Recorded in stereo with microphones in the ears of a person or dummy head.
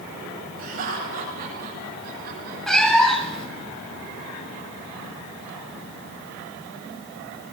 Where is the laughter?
50° right (ahead or behind), 9.5 m; by 2.6 s 60° right (ahead or behind), 6.5 m.